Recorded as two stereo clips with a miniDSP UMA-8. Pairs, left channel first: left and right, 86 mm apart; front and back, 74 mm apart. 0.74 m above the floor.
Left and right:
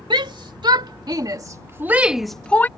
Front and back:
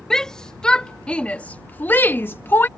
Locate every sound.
0.1 s a shout: 80° right; by 2.7 s 40° left